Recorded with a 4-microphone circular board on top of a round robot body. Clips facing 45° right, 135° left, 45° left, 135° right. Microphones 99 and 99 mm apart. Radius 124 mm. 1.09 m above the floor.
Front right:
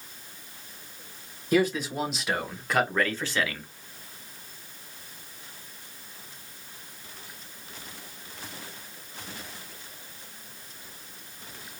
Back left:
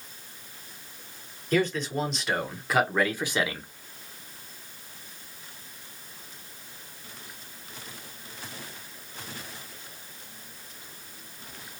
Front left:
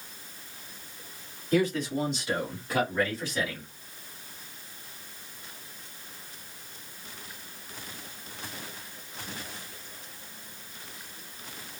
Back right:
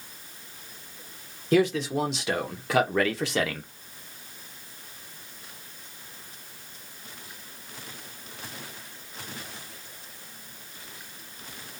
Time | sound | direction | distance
1.5 | a man speaking | 125° right | 1.8 m